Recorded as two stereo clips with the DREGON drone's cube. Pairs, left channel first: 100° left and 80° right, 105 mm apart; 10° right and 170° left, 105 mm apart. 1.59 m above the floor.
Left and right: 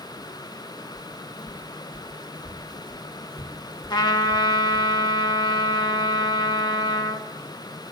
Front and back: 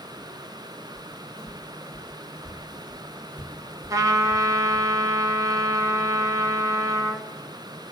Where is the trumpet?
130° left, 1.2 m.